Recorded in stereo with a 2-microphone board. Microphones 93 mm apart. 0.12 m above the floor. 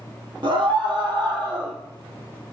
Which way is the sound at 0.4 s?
60° right (ahead or behind).